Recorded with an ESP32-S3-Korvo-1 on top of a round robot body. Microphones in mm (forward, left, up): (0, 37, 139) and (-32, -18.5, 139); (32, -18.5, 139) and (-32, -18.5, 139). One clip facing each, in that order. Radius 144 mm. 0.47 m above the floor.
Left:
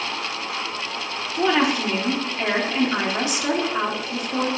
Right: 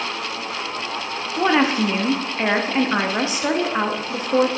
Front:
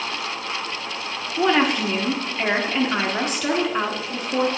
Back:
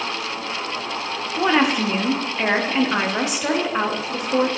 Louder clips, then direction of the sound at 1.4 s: Right 2 dB, back 1 dB; 110° right.